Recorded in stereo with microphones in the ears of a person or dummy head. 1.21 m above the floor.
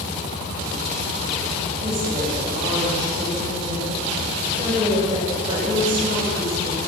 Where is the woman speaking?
30° right (ahead or behind), 5.5 m.